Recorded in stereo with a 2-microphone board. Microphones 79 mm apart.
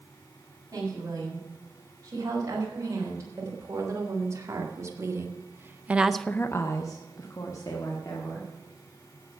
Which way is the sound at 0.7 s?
45° right (ahead or behind).